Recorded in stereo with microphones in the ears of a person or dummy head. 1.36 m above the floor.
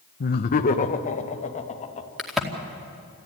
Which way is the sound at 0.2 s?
45° left (ahead or behind).